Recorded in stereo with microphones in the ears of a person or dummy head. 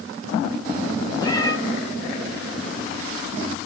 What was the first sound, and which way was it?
A cat meowing, 25° left (ahead or behind).